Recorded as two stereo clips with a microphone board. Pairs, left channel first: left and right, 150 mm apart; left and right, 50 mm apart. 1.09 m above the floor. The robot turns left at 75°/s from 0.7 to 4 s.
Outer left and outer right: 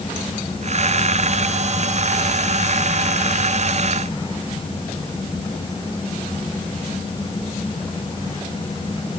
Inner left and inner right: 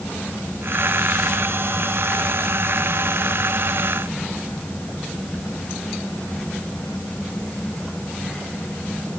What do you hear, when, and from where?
Only background noise.